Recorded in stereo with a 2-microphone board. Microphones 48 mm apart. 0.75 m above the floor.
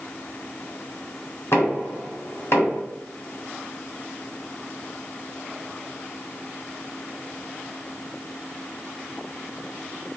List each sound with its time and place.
1.5 s knocking: 60° left (ahead or behind), 1.7 m